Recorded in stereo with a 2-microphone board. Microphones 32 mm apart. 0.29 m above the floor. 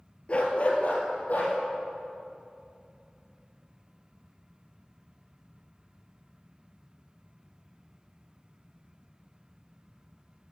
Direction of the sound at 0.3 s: 40° left (ahead or behind).